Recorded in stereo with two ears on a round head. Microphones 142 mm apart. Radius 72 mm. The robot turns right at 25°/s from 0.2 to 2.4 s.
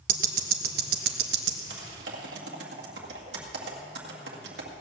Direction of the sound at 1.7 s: 90° right.